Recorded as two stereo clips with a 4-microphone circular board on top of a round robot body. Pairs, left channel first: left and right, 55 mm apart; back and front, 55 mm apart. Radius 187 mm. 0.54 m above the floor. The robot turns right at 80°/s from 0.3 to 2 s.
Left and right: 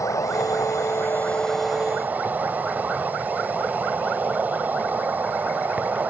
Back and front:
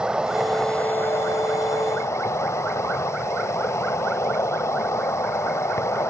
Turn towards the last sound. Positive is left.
turn(degrees=-150)